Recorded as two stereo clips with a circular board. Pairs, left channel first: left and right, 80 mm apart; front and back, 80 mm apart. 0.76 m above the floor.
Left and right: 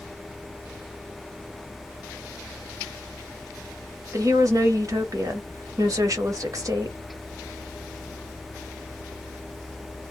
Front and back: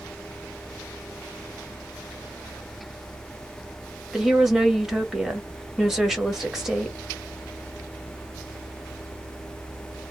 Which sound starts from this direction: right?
A woman speaking, at 4.1 s.